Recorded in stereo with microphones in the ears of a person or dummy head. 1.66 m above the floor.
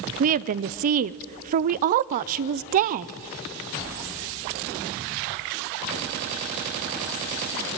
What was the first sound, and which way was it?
A woman speaking, 40° right (ahead or behind).